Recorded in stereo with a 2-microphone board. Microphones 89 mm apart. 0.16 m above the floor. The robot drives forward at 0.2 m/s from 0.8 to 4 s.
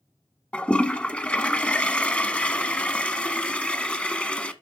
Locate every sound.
0.5 s a toilet flushing: 10° left (ahead or behind), 0.9 m